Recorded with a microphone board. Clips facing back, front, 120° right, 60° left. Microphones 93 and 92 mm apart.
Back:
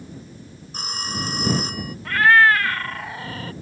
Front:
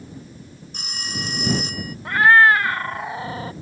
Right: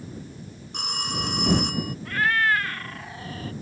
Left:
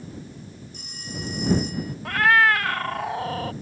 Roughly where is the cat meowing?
Ahead left.